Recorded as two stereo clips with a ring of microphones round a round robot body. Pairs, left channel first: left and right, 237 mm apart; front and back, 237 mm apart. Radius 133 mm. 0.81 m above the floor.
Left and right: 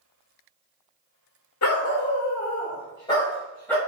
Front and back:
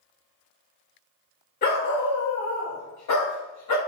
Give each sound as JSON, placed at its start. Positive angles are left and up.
{"t": 1.6, "sound": "a dog barking", "azimuth_deg": 55, "distance_m": 1.2}